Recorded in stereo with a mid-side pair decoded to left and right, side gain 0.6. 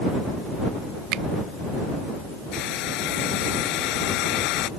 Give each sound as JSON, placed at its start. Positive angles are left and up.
{"t": 1.1, "sound": "a finger snap", "azimuth_deg": -65}
{"t": 2.5, "sound": "a hair dryer", "azimuth_deg": 70}